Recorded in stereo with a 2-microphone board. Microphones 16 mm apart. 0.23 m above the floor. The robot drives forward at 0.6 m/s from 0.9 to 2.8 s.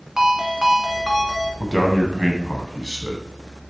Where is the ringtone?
25° right (ahead or behind), 1.0 m; by 1.5 s 20° right (ahead or behind), 1.3 m.